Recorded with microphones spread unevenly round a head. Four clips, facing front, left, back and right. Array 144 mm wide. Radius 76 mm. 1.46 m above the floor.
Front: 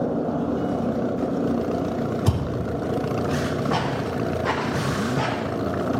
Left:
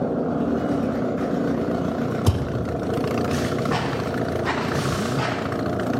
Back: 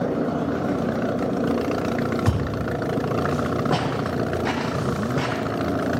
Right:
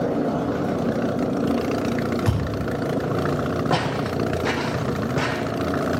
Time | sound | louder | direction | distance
2.3 | a thud | even, back 1 dB | 130° left | 3.5 m
3.7 | footsteps | right 1 dB, back 1 dB | 140° right | 3.5 m